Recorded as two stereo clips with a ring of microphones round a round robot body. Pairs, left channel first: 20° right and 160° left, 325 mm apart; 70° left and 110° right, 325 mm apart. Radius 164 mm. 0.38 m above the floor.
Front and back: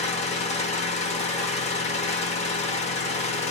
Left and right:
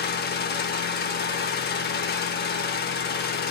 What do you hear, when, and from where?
0.0 s an engine running: 35° left, 0.8 m